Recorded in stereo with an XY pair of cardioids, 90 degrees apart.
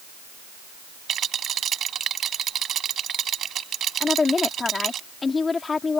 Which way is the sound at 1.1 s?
65° right.